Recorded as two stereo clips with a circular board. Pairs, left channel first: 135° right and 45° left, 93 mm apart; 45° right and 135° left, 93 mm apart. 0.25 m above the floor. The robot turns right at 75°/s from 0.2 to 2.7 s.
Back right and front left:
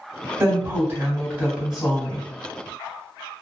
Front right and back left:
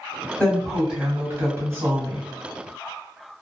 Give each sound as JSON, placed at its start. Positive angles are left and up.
{"t": 0.4, "sound": "a woman speaking", "azimuth_deg": 25, "distance_m": 1.8}